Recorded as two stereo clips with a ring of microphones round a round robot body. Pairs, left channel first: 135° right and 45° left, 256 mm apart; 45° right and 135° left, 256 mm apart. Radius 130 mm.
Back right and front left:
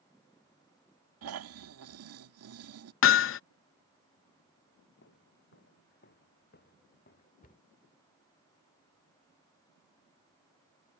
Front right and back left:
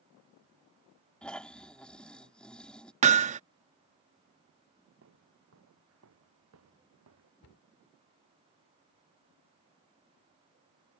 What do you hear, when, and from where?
1.2 s snoring: 40° left
3.0 s hammering: 165° right
5.0 s footsteps: 175° left; by 7.3 s 170° left
7.4 s a cupboard door: 75° right